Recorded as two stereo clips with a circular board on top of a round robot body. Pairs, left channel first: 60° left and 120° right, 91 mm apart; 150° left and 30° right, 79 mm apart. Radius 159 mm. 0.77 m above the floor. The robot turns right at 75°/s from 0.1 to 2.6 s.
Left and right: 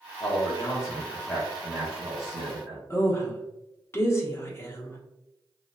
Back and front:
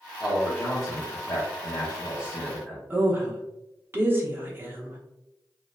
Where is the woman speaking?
15° left, 1.0 m.